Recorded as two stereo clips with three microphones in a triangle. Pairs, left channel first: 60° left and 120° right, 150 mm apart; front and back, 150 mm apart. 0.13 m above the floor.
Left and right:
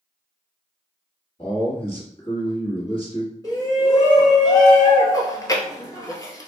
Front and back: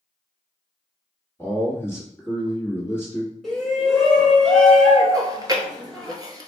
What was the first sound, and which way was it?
A man speaking, 65° left.